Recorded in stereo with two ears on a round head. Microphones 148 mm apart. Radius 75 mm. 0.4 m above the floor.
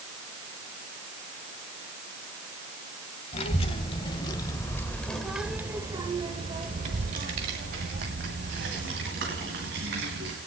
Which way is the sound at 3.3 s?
40° left (ahead or behind).